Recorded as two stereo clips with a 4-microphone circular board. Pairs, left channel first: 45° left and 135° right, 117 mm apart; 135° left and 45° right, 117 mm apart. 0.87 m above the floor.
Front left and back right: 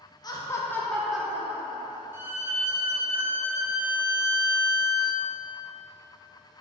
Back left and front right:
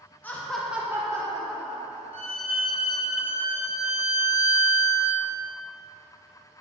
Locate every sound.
0.2 s laughter: 70° left, 1.1 m; by 2.0 s 80° right, 1.7 m
2.1 s a violin: 65° right, 1.2 m